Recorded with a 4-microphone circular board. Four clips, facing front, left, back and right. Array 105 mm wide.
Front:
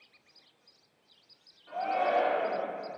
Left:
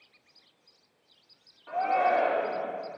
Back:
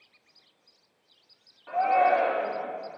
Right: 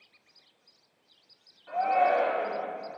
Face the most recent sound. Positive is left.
turn(degrees=155)